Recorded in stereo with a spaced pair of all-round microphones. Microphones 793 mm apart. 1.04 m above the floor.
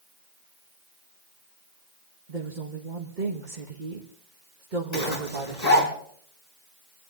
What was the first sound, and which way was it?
A woman speaking, 70° right (ahead or behind).